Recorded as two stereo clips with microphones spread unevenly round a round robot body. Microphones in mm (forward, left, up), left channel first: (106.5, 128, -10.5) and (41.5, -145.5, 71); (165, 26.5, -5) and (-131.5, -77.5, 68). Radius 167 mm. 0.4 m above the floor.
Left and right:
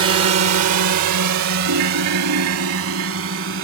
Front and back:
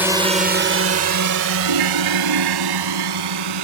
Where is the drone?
65° right; by 3.6 s 160° right.